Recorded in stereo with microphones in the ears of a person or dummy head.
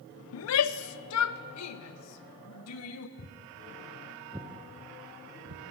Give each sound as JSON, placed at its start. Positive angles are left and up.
{"t": 0.3, "sound": "a shout", "side_deg": 65, "distance_m": 0.8}
{"t": 3.2, "sound": "footsteps", "side_deg": 30, "distance_m": 2.5}